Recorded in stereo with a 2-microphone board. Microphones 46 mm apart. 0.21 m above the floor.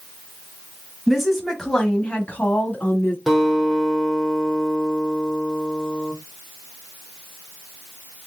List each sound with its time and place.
1.1 s a woman speaking: 5° right (ahead or behind), 1.3 m; by 3.2 s 40° left (ahead or behind), 1.5 m
3.3 s a guitar: 5° right (ahead or behind), 2 m